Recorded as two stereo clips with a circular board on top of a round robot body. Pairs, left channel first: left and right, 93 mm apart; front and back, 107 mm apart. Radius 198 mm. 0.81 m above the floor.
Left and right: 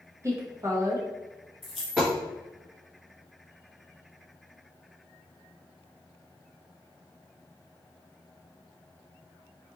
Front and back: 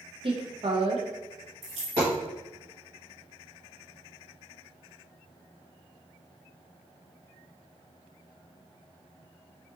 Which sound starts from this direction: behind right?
A woman speaking, at 0.2 s.